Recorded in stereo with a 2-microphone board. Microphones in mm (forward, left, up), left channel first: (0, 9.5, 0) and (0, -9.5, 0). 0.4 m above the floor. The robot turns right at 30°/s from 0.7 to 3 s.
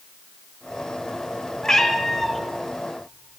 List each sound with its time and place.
1.6 s a cat meowing: 25° left (ahead or behind), 1.0 m; by 2.4 s 5° left (ahead or behind), 1.0 m